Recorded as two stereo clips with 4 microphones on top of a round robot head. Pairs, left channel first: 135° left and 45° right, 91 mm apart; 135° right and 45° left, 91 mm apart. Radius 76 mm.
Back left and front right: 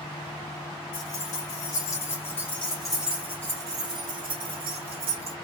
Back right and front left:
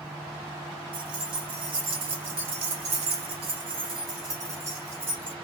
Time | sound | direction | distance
0.9 | keys jangling | 90° left | 1.9 m